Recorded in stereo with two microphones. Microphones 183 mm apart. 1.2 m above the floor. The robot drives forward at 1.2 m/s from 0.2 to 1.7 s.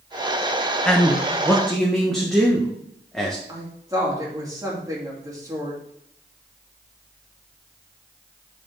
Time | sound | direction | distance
0.8 | a man speaking | 5° left (ahead or behind) | 0.6 m
3.5 | a woman speaking | 20° right (ahead or behind) | 2.5 m